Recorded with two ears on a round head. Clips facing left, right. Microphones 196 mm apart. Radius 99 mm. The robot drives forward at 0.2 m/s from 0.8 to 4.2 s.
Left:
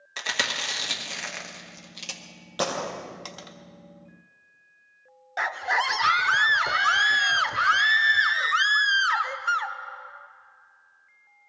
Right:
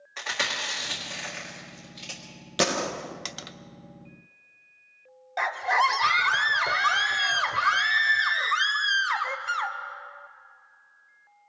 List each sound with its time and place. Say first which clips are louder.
0.2 s chewing: left 1 dB; 45° left (ahead or behind), 1.6 m; by 2.2 s 55° left (ahead or behind), 1.4 m
2.6 s a gunshot: right 2 dB; 30° right (ahead or behind), 0.7 m; by 3.5 s 25° right (ahead or behind), 0.8 m
5.4 s a scream: right 3 dB; 10° left (ahead or behind), 0.6 m